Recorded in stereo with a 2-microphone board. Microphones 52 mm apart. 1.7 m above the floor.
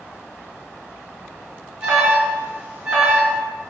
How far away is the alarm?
About 1.1 m.